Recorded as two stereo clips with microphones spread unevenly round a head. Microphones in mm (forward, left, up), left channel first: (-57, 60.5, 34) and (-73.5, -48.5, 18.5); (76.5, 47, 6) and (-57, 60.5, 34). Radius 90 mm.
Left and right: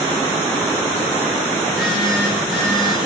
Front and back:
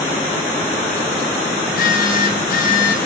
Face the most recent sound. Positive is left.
turn(degrees=-10)